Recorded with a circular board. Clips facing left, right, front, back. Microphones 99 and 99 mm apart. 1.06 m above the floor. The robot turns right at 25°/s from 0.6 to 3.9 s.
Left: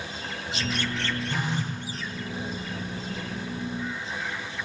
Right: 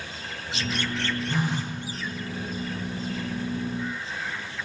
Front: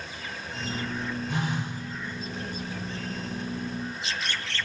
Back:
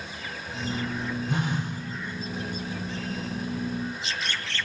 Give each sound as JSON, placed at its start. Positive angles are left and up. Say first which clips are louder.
{"t": 1.3, "sound": "a phone buzzing", "louder": "right 2 dB, back 2 dB", "azimuth_deg": -150, "distance_m": 4.5}